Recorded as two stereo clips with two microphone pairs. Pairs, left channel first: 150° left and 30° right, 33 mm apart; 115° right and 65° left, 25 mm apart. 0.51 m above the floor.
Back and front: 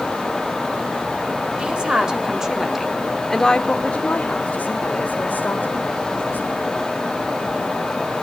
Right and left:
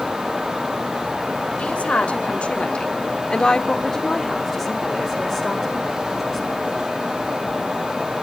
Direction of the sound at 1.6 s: 85° right.